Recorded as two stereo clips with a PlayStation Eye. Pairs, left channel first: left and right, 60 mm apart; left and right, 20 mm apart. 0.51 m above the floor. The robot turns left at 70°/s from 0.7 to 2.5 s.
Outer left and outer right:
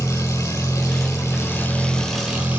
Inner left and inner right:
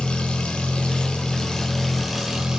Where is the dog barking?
No dog barking in this recording.